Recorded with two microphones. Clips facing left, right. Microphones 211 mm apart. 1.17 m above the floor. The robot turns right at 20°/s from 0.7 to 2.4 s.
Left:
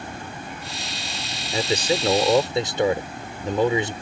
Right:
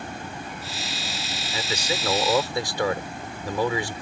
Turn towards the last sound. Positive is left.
turn(degrees=25)  # may be behind; listen again after turning